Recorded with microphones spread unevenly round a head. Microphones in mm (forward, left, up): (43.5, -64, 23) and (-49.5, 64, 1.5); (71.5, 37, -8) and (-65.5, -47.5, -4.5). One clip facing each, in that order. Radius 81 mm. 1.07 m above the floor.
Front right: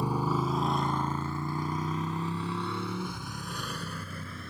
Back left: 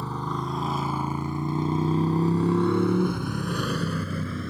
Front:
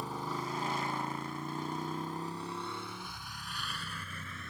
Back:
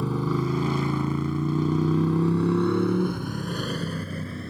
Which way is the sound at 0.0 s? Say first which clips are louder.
Front right 2 dB, back 12 dB; 130° right.